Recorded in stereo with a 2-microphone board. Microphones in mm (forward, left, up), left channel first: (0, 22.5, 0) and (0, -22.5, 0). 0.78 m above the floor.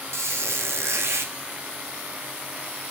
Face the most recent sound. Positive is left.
turn(degrees=-80)